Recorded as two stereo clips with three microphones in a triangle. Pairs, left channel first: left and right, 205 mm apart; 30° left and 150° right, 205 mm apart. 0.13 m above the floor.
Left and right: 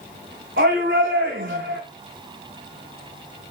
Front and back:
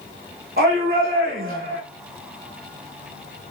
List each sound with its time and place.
0.6 s a shout: 110° right, 8 m